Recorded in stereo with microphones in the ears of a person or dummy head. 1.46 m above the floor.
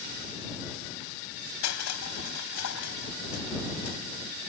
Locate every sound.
1.6 s crushing: 75° left (ahead or behind)